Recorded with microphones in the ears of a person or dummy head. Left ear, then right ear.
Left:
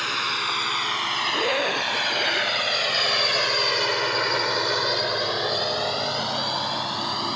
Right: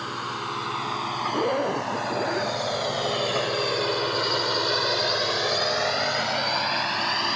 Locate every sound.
0.0 s a drone: 85° left; by 7.4 s 35° right (ahead or behind)
1.3 s a zipper: 90° left